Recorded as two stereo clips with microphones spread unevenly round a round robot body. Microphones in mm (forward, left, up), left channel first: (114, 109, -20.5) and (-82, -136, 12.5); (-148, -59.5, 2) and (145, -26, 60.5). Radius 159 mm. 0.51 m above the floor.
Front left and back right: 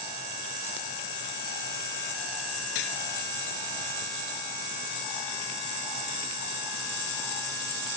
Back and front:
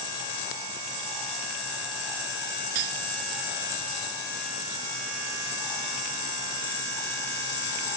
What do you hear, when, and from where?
2.8 s cutlery clinking: 30° left